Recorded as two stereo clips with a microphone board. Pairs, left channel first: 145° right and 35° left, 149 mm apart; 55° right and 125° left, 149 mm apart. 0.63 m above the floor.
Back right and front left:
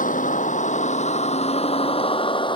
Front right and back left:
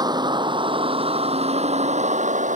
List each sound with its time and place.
0.0 s a vehicle: 175° right; by 2.6 s 155° left